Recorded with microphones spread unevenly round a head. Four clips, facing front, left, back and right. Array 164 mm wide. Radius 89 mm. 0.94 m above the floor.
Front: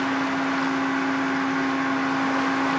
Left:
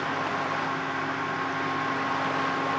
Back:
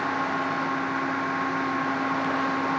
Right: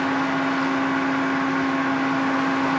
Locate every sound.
0.0 s a fan: 85° right, 0.8 m